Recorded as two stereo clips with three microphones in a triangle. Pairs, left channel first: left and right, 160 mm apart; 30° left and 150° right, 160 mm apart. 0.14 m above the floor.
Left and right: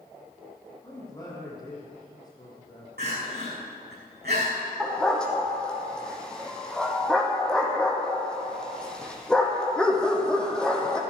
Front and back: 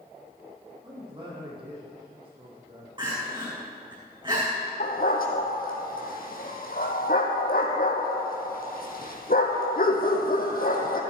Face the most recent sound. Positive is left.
turn(degrees=5)